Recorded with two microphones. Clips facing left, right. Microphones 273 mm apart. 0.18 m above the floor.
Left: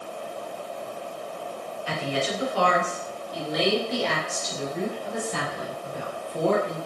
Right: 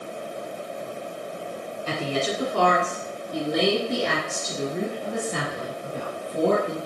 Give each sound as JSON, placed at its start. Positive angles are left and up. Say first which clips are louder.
{"t": 1.9, "sound": "a woman speaking", "louder": "right 2 dB", "side_deg": -45, "distance_m": 2.0}